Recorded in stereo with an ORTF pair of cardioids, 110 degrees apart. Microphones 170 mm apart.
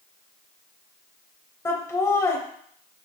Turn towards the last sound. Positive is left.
turn(degrees=15)